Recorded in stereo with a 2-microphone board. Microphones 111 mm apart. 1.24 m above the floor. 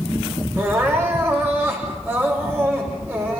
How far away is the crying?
About 5 m.